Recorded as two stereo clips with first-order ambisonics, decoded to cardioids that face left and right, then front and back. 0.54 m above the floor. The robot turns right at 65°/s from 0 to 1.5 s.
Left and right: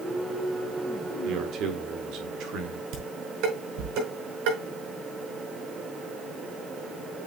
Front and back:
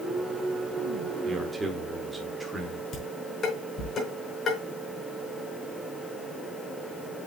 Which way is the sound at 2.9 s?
65° right.